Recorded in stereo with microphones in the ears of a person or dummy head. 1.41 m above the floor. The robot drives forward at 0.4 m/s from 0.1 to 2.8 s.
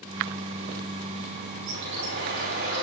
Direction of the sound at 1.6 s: 70° right (ahead or behind).